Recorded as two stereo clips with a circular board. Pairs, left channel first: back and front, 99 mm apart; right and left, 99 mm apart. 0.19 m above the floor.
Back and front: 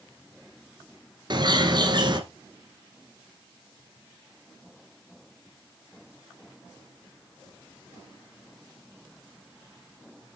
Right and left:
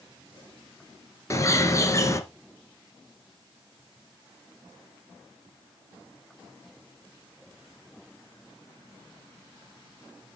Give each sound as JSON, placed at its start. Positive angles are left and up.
{"t": 1.3, "sound": "a bird", "azimuth_deg": -35, "distance_m": 1.8}